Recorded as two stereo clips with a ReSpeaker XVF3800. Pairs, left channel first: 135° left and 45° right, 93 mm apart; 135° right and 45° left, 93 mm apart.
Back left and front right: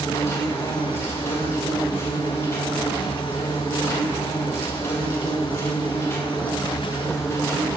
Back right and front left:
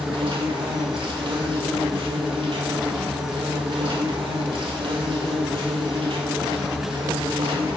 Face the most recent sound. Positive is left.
turn(degrees=75)